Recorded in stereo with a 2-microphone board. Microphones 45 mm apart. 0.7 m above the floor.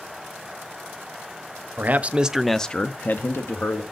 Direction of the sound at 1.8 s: 40° right (ahead or behind).